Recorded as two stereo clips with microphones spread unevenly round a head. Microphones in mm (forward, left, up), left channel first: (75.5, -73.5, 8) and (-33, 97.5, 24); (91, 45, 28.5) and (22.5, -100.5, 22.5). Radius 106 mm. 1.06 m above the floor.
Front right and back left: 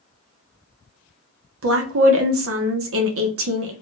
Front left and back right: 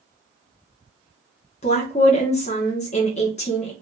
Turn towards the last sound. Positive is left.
turn(degrees=115)